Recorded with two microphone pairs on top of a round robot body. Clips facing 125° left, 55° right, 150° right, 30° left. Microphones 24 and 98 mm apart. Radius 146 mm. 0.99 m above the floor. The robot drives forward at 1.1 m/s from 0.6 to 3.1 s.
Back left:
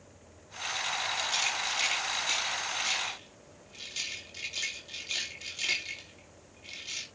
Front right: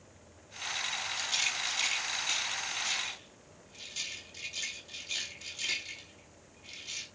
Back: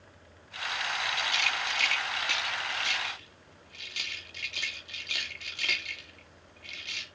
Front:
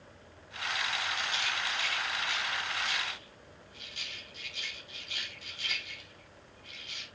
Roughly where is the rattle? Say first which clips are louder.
Front right 1 dB, back 3 dB; behind right.